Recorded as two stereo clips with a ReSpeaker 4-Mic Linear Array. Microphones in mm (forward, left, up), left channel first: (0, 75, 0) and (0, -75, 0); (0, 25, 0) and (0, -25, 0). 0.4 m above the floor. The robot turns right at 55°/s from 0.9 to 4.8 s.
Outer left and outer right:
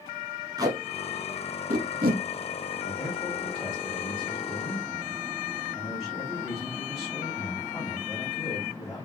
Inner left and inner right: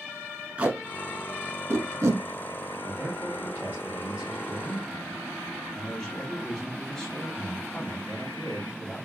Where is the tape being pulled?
25° right (ahead or behind), 1.1 m; by 2.2 s 85° right, 1.1 m.